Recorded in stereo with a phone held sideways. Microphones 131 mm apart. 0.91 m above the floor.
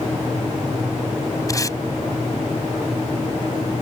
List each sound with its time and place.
1.5 s tape being pulled: 25° left (ahead or behind)